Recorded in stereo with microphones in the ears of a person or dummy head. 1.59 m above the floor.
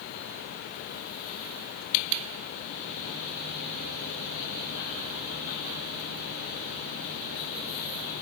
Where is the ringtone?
No ringtone in this recording.